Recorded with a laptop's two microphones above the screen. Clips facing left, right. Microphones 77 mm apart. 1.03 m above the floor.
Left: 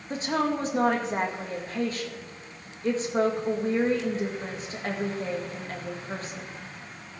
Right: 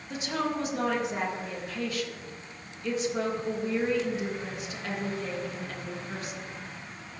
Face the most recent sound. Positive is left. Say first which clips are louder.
# left 4 dB
turn(degrees=35)  # may be behind; listen again after turning